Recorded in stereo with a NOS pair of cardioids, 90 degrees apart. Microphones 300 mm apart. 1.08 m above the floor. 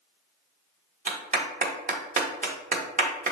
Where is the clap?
25° right, 0.9 m.